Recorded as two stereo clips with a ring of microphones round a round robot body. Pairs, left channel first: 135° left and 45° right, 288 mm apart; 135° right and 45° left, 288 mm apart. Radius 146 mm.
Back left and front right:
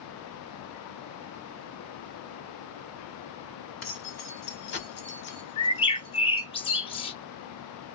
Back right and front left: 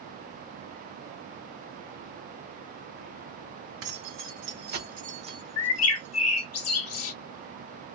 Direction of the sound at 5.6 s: 155° right.